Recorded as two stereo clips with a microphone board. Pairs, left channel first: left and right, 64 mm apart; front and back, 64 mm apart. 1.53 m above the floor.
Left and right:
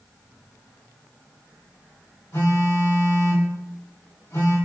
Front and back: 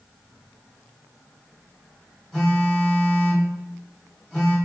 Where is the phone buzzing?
90° left, 1.8 m.